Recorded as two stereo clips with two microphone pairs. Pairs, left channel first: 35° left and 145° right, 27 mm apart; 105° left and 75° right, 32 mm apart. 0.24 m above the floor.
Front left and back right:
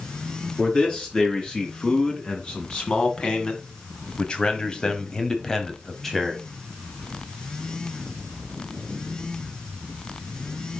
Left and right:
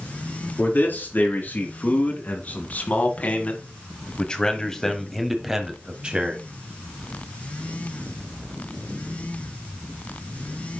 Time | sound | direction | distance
0.6 | a man speaking | 85° left | 3.5 m